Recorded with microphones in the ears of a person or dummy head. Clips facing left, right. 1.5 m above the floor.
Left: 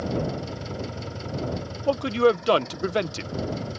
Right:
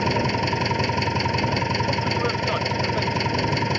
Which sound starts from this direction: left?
A man speaking, at 1.9 s.